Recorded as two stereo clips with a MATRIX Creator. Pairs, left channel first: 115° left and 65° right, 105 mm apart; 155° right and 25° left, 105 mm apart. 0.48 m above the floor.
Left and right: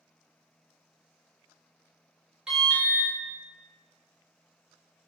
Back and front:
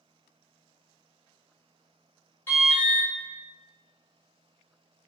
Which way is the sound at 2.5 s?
140° right.